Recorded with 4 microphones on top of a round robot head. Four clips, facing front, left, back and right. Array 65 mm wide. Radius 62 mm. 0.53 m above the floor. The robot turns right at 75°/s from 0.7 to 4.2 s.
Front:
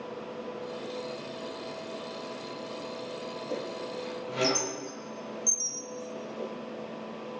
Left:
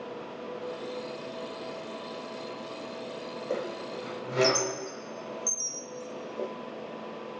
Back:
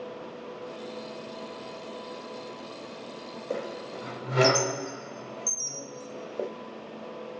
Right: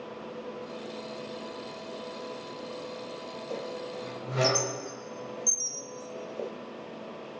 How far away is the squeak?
About 0.6 m.